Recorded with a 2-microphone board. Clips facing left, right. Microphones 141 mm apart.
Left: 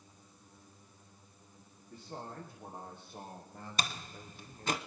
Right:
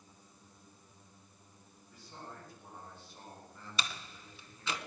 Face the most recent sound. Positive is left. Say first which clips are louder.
# left 2 dB
turn(degrees=45)  # may be behind; listen again after turning